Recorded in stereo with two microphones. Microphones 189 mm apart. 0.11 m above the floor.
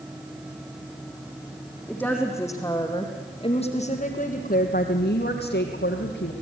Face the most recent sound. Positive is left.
turn(degrees=75)  # may be behind; listen again after turning